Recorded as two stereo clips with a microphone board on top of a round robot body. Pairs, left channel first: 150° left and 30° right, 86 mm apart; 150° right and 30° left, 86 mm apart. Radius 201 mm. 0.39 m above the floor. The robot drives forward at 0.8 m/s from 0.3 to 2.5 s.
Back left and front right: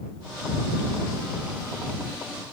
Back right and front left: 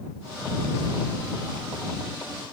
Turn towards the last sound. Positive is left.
No sound to turn to.